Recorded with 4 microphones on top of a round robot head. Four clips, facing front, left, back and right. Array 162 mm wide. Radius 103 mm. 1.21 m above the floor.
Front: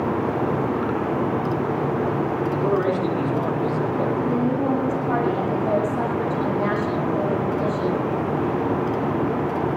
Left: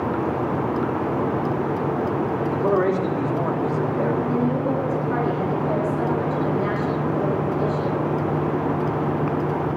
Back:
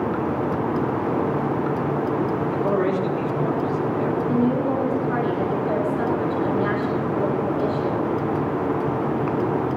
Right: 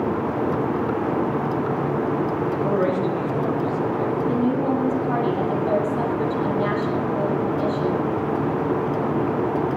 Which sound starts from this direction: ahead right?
A woman speaking, at 4.2 s.